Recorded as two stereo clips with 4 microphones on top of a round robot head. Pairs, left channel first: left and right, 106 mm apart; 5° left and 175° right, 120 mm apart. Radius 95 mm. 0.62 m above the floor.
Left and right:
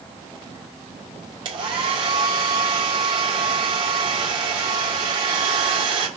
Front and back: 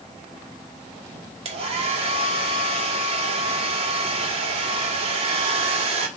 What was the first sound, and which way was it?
A hair dryer, 135° right.